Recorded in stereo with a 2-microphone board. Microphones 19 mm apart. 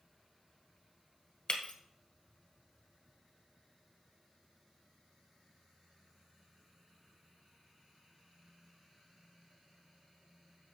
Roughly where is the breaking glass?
Left.